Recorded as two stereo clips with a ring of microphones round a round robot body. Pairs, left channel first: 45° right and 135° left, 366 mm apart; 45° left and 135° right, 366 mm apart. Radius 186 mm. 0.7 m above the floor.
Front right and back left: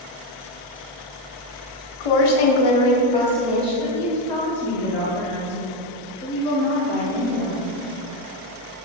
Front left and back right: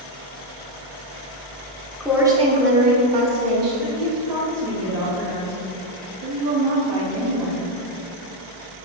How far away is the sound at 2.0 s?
About 1.7 m.